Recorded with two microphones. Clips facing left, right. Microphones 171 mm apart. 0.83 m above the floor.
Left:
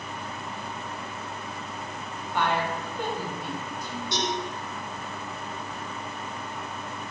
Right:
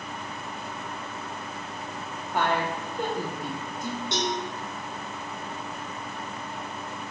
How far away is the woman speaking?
About 0.7 m.